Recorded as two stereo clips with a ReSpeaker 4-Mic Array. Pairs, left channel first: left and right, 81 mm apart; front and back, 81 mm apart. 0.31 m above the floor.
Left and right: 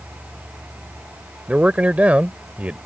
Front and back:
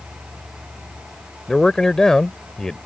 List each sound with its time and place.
1.5 s a man speaking: 65° right